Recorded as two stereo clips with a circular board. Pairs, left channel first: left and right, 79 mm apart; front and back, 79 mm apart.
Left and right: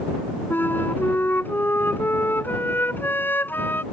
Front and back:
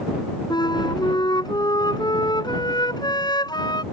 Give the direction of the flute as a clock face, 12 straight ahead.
11 o'clock.